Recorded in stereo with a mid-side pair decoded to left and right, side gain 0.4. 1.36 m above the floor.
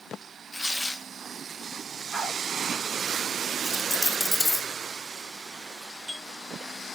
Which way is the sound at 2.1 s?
60° right.